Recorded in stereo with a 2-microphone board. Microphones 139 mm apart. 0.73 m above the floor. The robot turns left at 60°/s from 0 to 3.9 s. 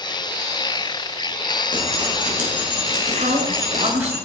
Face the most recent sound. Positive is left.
turn(degrees=-130)